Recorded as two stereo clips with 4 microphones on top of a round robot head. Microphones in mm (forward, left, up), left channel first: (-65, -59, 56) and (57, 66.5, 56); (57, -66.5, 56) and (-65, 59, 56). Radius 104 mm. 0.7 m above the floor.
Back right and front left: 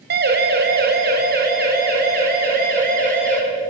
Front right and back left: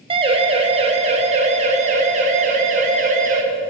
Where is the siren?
75° left, 4 m; by 3.4 s 85° left, 7 m.